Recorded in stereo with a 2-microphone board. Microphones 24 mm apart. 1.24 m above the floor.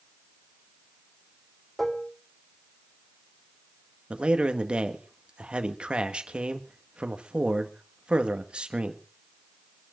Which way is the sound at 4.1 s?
40° right (ahead or behind).